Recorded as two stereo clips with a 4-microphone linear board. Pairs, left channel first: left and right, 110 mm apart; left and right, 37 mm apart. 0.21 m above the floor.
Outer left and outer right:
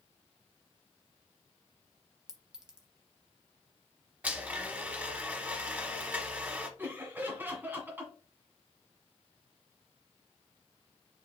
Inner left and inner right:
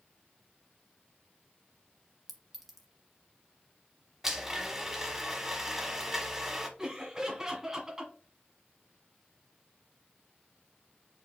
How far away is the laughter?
About 1.6 m.